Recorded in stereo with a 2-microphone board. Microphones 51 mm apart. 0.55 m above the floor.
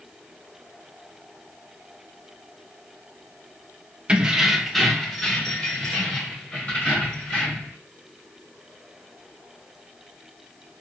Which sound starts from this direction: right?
Keys jangling, at 4.1 s.